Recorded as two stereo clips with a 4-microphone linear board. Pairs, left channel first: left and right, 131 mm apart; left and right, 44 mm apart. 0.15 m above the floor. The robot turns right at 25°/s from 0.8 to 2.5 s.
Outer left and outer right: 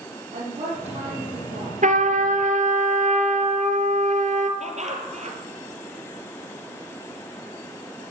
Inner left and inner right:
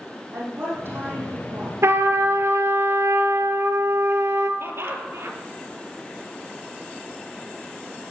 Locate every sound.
0.3 s a woman speaking: 50° right (ahead or behind), 6.5 m; by 1.7 s 70° right (ahead or behind), 6.5 m
1.8 s a trumpet: 70° right (ahead or behind), 1.1 m; by 4.5 s 65° right (ahead or behind), 1.1 m
4.6 s laughter: 60° right (ahead or behind), 3 m